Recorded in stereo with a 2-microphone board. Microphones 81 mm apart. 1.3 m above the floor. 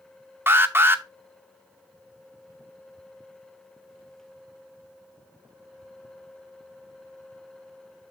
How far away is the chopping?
No chopping in this recording.